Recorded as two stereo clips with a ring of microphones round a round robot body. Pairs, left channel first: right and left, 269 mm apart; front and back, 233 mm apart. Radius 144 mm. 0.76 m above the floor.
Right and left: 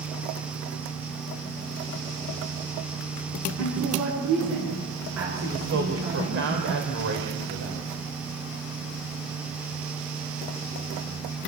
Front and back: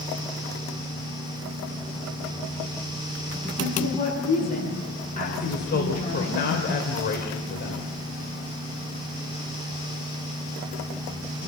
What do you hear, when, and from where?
3.6 s a woman speaking: 60° left, 8 m; by 6.4 s 50° left, 11 m
5.4 s a woman speaking: 45° left, 3 m